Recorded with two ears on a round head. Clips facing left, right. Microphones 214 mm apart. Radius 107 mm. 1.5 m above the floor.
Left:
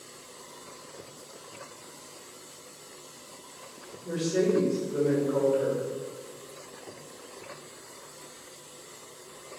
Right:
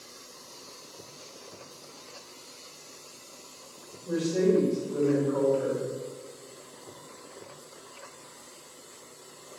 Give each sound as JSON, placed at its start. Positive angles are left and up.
{"t": 4.0, "sound": "a woman speaking", "side_deg": 40, "distance_m": 1.8}